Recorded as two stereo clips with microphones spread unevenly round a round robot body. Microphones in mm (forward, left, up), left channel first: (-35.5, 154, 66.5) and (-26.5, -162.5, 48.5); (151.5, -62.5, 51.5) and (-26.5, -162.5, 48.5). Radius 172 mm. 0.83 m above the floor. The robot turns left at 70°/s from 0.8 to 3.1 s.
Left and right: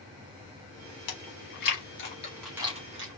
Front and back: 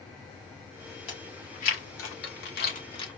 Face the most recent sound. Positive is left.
turn(degrees=-45)